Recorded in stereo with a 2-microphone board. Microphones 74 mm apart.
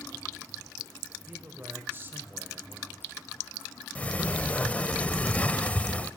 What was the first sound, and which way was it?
A man speaking, 30° right (ahead or behind).